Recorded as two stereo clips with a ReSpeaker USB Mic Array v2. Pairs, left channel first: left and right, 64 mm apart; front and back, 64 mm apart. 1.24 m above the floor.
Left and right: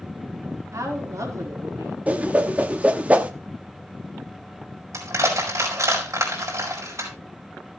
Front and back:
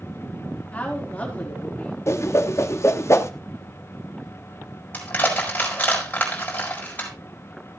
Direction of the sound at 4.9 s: 65° right.